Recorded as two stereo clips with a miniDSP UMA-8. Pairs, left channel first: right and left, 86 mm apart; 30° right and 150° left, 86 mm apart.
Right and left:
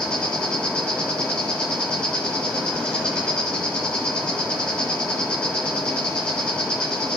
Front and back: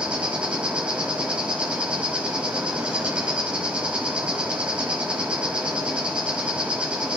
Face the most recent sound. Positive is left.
turn(degrees=-150)